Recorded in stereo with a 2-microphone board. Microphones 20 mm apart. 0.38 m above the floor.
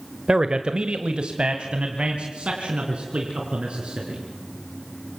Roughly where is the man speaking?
Right.